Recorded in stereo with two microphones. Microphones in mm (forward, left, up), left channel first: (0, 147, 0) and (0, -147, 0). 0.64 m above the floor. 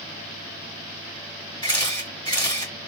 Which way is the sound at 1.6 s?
15° left (ahead or behind).